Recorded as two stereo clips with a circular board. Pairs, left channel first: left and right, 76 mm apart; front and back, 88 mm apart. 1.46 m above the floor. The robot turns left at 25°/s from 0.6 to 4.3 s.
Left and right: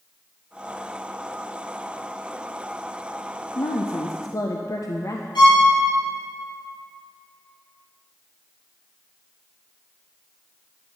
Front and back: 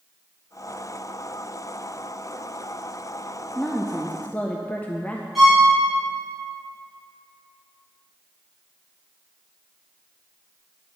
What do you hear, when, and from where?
3.5 s a woman speaking: 85° left, 0.5 m; by 5.2 s 70° left, 0.5 m
5.3 s a violin: 90° left, 2.5 m